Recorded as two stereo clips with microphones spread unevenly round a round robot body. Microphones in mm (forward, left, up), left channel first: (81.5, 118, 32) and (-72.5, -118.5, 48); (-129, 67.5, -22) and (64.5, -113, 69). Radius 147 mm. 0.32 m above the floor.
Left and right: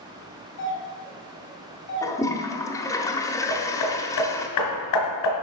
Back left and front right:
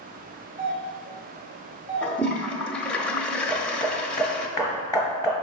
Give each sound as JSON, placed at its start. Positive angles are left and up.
{"t": 0.6, "sound": "a doorbell", "azimuth_deg": 45, "distance_m": 3.0}
{"t": 2.0, "sound": "a toilet flushing", "azimuth_deg": 115, "distance_m": 1.1}
{"t": 3.5, "sound": "hammering", "azimuth_deg": 60, "distance_m": 2.5}